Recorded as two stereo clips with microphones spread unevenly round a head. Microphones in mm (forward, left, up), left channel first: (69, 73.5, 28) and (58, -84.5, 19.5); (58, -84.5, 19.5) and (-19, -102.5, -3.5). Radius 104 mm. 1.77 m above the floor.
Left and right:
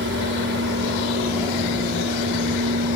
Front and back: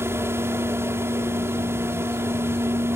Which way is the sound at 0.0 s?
105° right.